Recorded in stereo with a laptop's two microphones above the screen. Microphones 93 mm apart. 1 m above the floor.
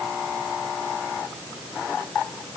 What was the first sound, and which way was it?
Only background noise.